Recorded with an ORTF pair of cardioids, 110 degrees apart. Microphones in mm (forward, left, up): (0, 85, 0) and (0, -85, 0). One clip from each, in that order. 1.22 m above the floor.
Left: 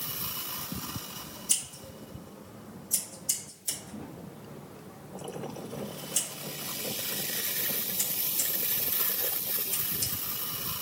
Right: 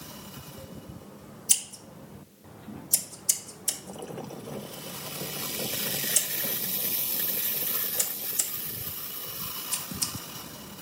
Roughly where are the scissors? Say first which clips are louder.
Right 4 dB; ahead right.